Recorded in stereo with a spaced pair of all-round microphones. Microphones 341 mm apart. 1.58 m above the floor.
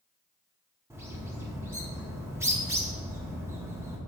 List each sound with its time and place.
0.9 s a bird: 10° right (ahead or behind), 1.2 m